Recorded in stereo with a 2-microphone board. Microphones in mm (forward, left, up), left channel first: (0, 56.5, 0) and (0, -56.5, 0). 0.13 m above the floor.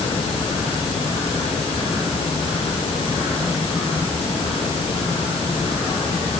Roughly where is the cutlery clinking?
No cutlery clinking in this recording.